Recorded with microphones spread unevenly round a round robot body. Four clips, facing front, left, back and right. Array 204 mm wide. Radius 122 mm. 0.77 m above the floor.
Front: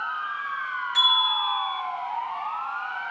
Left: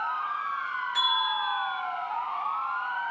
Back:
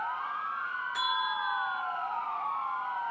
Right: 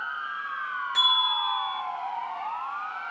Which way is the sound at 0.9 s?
90° right.